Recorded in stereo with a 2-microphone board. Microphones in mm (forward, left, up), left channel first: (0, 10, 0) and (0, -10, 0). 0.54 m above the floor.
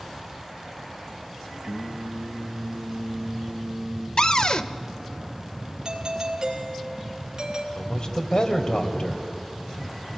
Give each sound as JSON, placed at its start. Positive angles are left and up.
{"t": 1.6, "sound": "singing", "side_deg": -35, "distance_m": 3.0}
{"t": 4.2, "sound": "a cupboard door", "side_deg": 45, "distance_m": 0.8}
{"t": 5.8, "sound": "a doorbell", "side_deg": -35, "distance_m": 2.5}
{"t": 7.8, "sound": "a man speaking", "side_deg": 50, "distance_m": 2.5}